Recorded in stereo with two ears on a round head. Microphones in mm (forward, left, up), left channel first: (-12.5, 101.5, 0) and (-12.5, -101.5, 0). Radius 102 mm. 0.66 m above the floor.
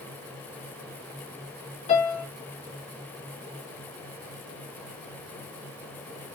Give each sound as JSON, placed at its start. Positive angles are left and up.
{"t": 1.9, "sound": "a piano", "side_deg": 30, "distance_m": 1.9}